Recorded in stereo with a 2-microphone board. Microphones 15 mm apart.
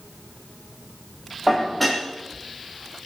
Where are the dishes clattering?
5° right (ahead or behind), 5 m.